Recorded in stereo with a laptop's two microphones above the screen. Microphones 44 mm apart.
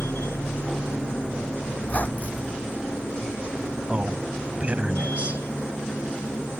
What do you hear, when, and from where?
0.0 s a machine running: 80° left
1.8 s a squeak: 35° left (ahead or behind)
3.9 s a man speaking: 30° right (ahead or behind)